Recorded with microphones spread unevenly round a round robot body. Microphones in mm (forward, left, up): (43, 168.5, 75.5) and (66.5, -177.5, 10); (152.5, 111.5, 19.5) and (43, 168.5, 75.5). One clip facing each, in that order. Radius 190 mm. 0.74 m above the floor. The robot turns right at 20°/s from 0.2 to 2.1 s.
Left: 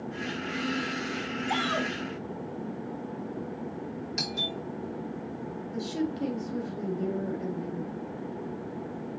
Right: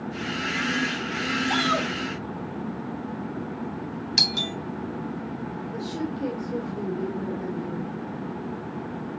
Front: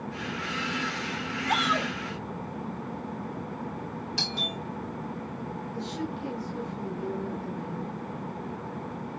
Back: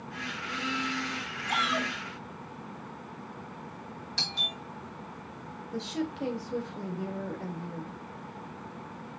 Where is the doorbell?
95° right, 2 m.